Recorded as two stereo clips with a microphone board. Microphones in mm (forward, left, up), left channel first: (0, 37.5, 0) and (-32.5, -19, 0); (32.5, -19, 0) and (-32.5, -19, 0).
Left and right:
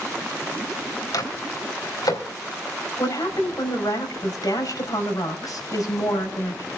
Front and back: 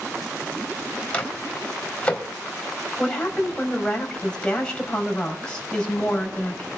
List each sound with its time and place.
1.1 s a microwave: 70° left, 3 m
3.0 s a woman speaking: 75° left, 5 m